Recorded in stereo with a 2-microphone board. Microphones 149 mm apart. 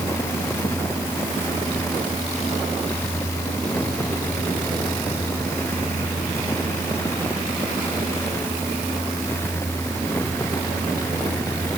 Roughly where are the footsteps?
No footsteps in this recording.